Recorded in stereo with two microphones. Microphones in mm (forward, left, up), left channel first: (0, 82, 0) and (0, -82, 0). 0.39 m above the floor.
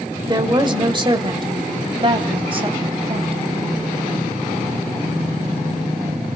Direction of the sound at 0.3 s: 25° right (ahead or behind).